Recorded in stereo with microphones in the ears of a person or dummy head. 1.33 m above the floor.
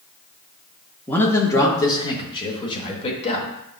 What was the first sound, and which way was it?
A man speaking, 10° left (ahead or behind).